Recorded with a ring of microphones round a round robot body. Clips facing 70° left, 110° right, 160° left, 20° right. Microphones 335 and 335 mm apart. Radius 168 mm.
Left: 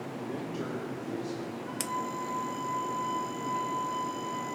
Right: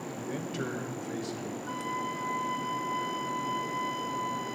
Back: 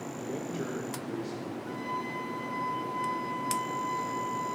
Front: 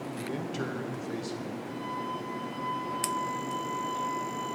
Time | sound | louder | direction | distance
0.2 | a man speaking | even, even | 85° right | 1.4 m
1.7 | a flute | even, even | 140° right | 1.3 m